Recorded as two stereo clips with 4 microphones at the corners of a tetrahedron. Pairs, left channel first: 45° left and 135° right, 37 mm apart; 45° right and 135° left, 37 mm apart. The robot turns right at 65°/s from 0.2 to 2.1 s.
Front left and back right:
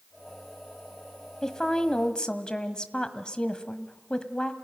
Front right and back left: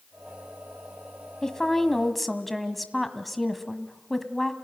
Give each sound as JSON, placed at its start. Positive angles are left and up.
{"t": 1.4, "sound": "a woman speaking", "azimuth_deg": -10, "distance_m": 1.3}